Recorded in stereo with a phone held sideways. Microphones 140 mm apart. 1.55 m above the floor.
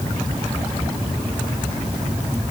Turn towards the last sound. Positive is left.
No sound to turn to.